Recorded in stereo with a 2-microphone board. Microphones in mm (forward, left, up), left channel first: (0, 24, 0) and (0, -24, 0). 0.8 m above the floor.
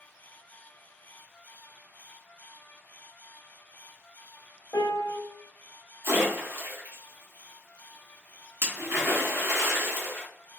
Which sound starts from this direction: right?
A splash, at 6.0 s.